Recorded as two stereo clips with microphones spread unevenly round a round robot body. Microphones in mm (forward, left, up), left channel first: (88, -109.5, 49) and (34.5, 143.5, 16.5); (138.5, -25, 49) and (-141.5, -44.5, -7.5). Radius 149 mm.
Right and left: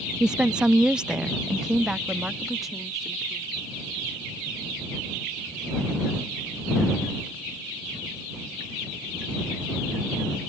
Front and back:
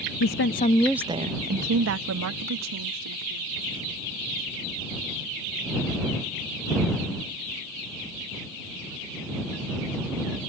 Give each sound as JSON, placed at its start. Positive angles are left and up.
{"t": 0.2, "sound": "a woman speaking", "azimuth_deg": 25}